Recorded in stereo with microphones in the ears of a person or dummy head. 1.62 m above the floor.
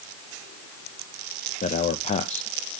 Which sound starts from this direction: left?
A man speaking, at 1.6 s.